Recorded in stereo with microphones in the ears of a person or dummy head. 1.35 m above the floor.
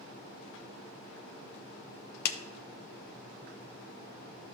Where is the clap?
60° left (ahead or behind), 0.9 m.